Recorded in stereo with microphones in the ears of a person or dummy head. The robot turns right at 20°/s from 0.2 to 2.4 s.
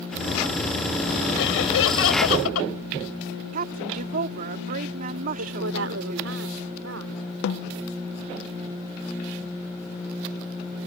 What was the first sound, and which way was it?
Laughter, 70° left (ahead or behind).